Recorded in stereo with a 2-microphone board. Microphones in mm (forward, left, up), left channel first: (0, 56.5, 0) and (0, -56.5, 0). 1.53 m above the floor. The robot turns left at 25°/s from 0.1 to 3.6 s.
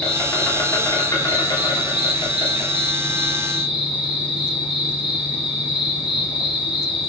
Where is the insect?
165° left, 1.4 m; by 7.1 s 75° left, 1.4 m.